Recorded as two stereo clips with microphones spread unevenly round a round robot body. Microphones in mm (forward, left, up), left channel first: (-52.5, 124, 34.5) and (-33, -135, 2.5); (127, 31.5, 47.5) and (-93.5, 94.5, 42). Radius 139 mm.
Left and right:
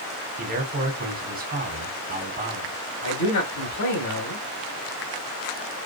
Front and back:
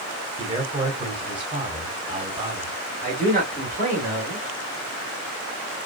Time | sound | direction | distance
0.4 | a man speaking | 130° right | 1.9 m
3.0 | a man speaking | 115° left | 3 m